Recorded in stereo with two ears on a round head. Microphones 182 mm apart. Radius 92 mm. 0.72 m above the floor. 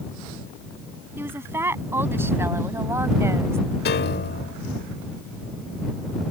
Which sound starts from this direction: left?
A piano, at 3.9 s.